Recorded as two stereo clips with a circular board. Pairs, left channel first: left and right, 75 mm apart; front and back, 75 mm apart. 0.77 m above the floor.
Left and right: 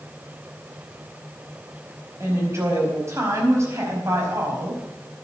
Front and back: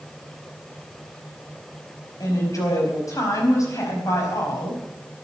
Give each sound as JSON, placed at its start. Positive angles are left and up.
{"t": 2.2, "sound": "a woman speaking", "azimuth_deg": -40, "distance_m": 4.5}